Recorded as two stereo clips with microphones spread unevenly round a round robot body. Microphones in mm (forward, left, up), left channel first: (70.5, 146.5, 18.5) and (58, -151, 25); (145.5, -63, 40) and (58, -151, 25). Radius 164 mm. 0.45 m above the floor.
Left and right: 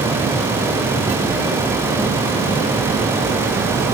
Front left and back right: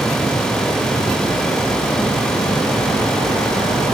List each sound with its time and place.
Only background noise.